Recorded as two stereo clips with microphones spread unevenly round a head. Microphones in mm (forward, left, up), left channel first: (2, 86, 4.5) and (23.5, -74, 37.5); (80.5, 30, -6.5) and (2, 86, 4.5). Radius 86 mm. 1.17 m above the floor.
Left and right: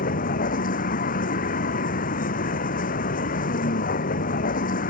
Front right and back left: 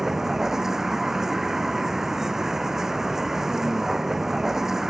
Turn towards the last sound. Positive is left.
turn(degrees=60)